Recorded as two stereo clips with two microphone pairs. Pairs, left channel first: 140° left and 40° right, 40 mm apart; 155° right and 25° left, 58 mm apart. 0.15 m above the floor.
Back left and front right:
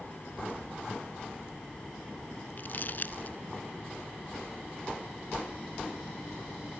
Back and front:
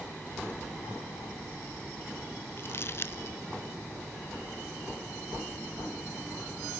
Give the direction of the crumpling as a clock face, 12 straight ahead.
6 o'clock.